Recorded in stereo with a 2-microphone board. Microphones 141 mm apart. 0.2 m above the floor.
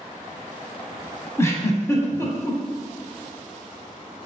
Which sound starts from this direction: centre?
A giggle, at 1.4 s.